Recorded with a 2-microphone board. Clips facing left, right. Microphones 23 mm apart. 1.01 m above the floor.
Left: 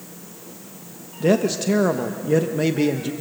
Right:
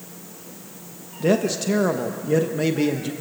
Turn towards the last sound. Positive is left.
turn(degrees=0)  # may be behind; listen again after turning